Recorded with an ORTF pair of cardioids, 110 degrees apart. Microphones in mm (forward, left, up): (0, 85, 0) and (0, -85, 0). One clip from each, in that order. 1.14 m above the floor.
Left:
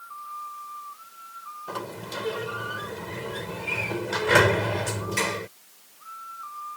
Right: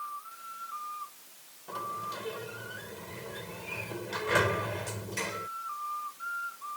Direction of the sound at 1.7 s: 55° left.